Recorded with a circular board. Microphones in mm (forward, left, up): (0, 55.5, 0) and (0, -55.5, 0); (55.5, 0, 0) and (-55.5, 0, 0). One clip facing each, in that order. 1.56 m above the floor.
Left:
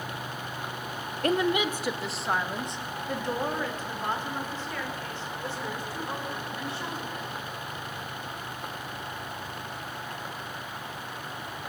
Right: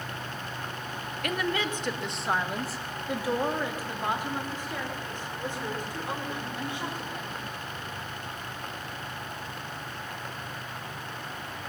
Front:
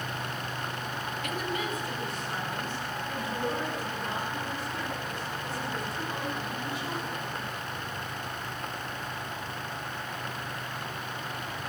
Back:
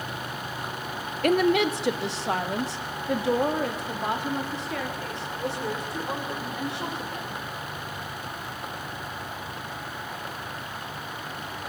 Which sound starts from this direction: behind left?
A woman speaking, at 1.2 s.